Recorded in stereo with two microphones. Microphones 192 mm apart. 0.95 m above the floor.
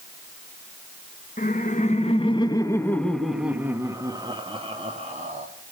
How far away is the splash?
No splash in this recording.